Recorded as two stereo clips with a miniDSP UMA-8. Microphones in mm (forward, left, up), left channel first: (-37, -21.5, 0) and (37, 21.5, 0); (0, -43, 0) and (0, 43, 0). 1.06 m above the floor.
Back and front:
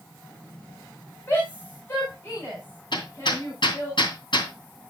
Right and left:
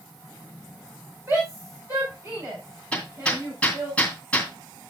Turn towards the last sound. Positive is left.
turn(degrees=-165)